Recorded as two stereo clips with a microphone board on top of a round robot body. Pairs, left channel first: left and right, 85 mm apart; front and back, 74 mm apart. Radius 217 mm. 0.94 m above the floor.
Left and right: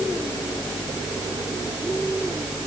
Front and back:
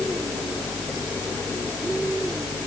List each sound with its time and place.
Only background noise.